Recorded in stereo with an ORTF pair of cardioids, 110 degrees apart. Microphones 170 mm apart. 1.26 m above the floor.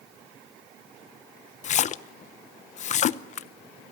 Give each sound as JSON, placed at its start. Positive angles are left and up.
{"t": 1.6, "sound": "a splash", "azimuth_deg": 45, "distance_m": 0.8}